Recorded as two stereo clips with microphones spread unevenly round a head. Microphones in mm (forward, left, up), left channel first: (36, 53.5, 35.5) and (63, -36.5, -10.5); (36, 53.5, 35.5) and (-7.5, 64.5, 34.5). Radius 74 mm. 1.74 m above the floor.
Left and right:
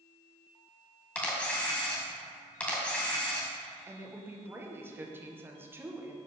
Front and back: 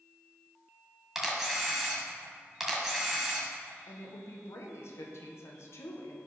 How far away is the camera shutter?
About 2 m.